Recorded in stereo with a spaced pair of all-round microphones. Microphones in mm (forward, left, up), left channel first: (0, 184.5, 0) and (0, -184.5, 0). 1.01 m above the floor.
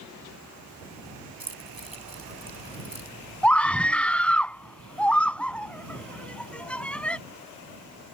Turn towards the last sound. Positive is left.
turn(degrees=5)  # may be behind; listen again after turning